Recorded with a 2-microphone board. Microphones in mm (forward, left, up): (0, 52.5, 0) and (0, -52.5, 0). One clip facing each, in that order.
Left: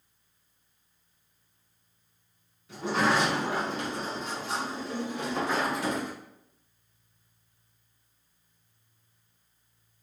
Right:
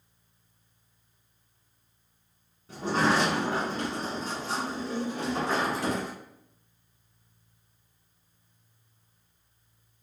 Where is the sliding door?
40° right (ahead or behind), 1.2 m.